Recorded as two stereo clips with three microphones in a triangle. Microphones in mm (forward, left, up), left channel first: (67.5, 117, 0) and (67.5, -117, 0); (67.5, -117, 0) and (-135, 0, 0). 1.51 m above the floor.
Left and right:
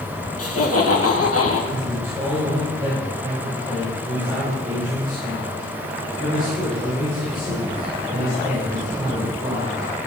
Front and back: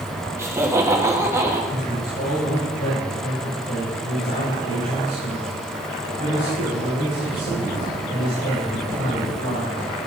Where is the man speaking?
20° right, 3.5 m.